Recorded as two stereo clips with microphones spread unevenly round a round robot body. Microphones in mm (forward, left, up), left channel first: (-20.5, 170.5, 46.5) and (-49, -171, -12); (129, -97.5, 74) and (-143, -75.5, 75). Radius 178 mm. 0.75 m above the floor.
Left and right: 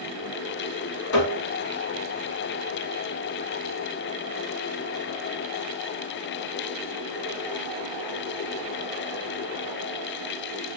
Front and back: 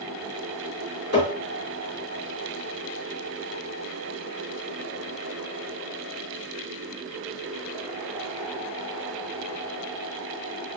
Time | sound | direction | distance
1.1 | tapping | 50° left | 2 m